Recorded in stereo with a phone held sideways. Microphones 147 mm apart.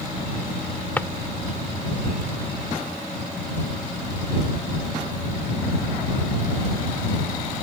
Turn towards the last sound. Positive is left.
turn(degrees=10)  # may be behind; listen again after turning